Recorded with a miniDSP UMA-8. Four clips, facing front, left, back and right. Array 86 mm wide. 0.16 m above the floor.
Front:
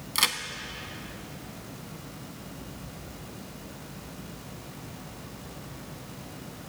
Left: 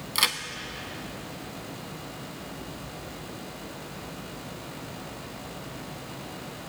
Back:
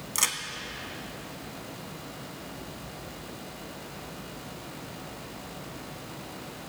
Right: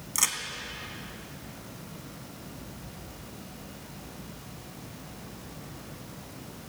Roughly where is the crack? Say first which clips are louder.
Left 5 dB, front 4 dB; ahead left.